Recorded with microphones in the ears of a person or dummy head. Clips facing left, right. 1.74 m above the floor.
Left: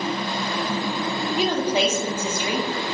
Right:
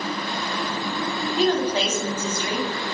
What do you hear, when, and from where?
1.4 s a woman speaking: 15° left (ahead or behind), 1.0 m